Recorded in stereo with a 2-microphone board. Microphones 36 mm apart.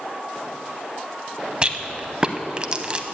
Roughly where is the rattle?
Right.